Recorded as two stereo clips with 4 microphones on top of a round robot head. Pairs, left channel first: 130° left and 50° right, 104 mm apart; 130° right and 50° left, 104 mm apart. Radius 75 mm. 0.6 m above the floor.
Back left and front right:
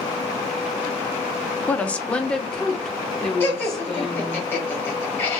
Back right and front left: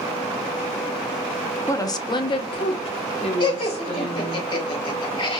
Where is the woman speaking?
165° right, 0.6 m; by 4.4 s 140° right, 1.9 m.